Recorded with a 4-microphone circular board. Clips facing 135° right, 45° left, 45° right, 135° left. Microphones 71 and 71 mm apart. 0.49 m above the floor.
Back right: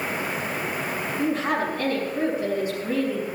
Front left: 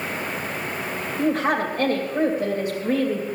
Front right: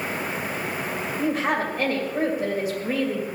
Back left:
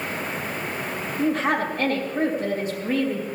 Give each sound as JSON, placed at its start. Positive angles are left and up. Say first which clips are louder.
{"t": 1.2, "sound": "a woman speaking", "louder": "front left 3 dB, back left 2 dB", "azimuth_deg": 35, "distance_m": 2.5}